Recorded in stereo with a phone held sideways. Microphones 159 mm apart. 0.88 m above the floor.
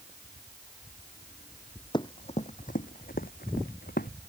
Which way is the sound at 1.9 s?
30° left (ahead or behind).